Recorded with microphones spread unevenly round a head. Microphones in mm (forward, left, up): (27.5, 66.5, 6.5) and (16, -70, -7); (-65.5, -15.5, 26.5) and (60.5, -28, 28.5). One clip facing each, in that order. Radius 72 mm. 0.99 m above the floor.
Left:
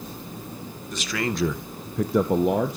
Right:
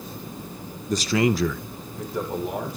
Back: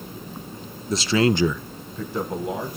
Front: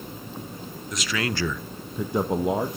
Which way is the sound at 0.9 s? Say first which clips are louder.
Right 7 dB, back 9 dB; 135° right.